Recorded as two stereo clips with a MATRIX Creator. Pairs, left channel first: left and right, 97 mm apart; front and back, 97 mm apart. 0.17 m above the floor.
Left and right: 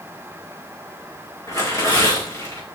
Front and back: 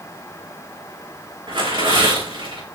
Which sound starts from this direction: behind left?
Tearing paper, at 1.5 s.